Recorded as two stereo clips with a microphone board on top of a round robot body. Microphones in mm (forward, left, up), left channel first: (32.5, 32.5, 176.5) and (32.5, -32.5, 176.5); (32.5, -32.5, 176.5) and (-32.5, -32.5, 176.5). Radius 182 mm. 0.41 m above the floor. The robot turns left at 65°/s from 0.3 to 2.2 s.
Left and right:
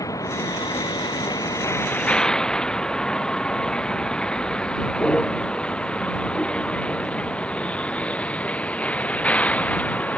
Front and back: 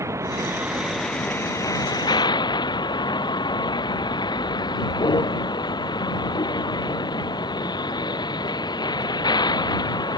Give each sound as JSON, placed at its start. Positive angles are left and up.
{"t": 0.0, "sound": "a vehicle", "azimuth_deg": 130}